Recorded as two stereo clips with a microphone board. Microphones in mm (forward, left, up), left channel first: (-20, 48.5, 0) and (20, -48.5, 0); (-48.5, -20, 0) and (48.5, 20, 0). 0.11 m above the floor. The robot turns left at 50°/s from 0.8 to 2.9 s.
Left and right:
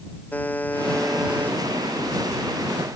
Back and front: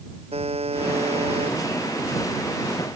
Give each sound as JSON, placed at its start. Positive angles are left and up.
{"t": 0.3, "sound": "a buzzer", "azimuth_deg": 35}